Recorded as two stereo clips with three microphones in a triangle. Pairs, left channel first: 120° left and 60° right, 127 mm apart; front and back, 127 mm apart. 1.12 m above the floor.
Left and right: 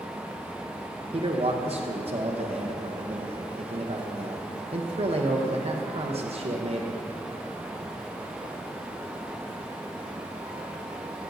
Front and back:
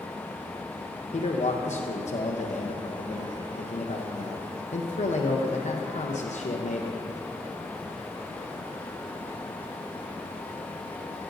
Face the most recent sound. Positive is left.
turn(degrees=-20)